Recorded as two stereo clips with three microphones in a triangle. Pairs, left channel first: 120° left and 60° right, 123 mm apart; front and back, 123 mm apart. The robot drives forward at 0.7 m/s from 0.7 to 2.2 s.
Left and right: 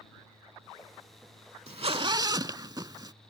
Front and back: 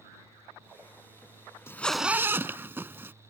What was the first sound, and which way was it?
A zipper, 65° right.